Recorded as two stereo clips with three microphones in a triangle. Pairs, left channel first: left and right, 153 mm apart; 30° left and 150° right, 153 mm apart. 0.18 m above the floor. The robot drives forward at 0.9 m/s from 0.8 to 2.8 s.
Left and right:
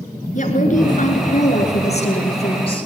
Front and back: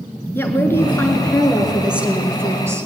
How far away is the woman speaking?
About 2 m.